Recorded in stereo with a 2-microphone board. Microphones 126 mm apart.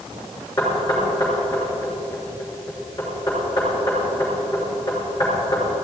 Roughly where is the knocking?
Left.